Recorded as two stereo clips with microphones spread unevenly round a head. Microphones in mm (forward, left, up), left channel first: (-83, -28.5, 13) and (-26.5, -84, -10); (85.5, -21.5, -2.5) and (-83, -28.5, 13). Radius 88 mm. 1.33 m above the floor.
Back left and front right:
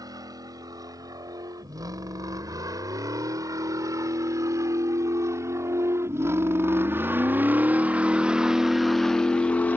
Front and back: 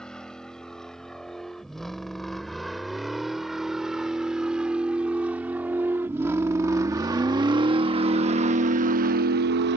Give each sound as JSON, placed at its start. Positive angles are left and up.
{"t": 0.0, "sound": "a vehicle", "azimuth_deg": -85}